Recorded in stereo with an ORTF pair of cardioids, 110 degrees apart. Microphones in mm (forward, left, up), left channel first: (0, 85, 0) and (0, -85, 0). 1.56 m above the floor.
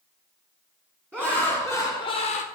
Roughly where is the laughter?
Ahead.